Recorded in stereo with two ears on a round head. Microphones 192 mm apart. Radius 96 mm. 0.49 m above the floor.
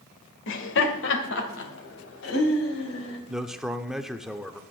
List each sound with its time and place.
0.5 s laughter: 60° left (ahead or behind), 1.9 m
3.3 s a man speaking: 5° right (ahead or behind), 0.8 m